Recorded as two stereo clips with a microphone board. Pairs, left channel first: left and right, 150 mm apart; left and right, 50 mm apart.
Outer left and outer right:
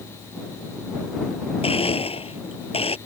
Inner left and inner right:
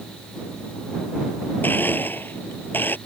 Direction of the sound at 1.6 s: 40° left (ahead or behind).